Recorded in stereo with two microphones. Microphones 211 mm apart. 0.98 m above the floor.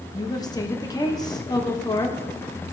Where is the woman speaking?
15° left (ahead or behind), 1.1 m.